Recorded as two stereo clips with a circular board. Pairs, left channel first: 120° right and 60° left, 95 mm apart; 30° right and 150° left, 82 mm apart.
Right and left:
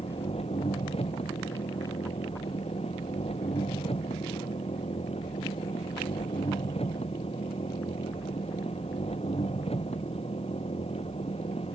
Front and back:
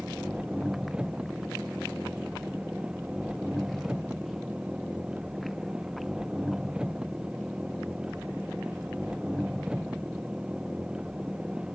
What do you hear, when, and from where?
0.0 s an engine running: 130° right